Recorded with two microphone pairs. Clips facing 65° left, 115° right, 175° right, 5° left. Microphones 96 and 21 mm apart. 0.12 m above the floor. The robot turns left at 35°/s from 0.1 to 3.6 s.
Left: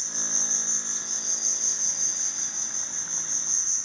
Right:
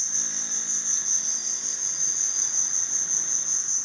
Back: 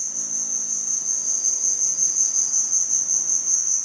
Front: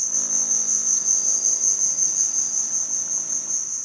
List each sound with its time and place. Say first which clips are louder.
0.0 s an insect: left 4 dB, front 4 dB; 25° right, 0.7 m; by 3.9 s 145° right, 0.7 m